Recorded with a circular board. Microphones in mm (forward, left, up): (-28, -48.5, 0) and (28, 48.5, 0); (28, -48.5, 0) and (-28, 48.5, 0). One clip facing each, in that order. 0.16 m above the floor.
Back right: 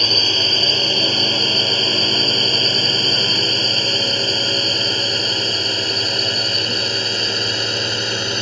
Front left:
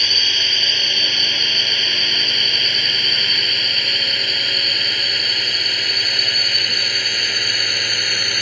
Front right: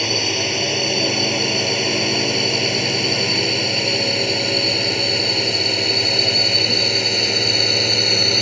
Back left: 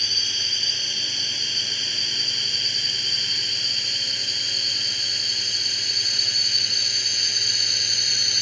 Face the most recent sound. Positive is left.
turn(degrees=-60)